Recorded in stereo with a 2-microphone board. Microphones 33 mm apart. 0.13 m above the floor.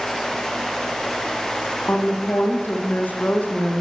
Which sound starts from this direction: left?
A woman speaking, at 1.9 s.